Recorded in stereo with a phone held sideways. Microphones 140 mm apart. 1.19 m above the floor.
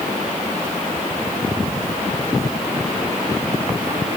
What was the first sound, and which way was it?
Only background noise.